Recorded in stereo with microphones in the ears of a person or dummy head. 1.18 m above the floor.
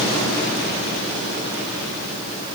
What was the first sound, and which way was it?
Only background noise.